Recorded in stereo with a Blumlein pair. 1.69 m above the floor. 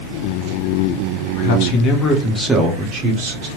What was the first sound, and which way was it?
A man speaking, 55° left.